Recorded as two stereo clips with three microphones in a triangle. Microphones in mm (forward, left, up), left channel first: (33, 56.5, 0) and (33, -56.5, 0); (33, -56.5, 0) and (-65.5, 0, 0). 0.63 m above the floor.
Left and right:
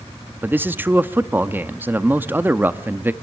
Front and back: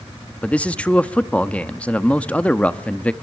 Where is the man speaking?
85° right, 0.7 m.